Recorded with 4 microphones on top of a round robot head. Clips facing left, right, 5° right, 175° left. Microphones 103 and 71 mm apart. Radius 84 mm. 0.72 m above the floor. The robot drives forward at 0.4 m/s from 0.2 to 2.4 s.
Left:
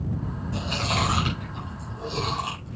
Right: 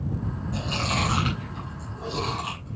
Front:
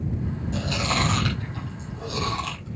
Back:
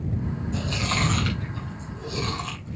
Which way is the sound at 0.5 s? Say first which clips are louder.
Left 1 dB, front 3 dB; 20° left.